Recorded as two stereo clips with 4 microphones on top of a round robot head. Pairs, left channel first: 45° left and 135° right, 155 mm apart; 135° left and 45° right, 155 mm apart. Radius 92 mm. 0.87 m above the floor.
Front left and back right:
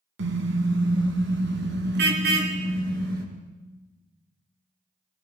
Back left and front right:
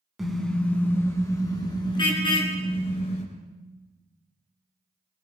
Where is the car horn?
135° right, 3 m; by 3.2 s 170° right, 5.5 m.